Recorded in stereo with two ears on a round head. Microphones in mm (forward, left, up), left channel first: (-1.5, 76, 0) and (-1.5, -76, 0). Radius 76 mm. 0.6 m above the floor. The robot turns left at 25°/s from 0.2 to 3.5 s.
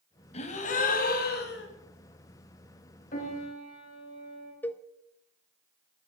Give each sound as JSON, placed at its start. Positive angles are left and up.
{"t": 0.3, "sound": "a gasp", "azimuth_deg": 140, "distance_m": 2.0}
{"t": 3.1, "sound": "a piano", "side_deg": 50, "distance_m": 4.0}
{"t": 4.6, "sound": "a cowbell", "side_deg": 10, "distance_m": 0.7}